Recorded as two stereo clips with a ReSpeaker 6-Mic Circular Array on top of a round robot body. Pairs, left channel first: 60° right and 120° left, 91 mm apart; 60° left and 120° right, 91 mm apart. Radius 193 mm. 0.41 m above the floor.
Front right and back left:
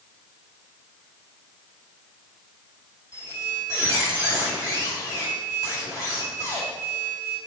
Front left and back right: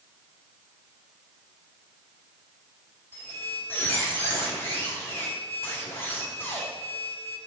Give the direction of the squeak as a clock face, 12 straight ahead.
12 o'clock.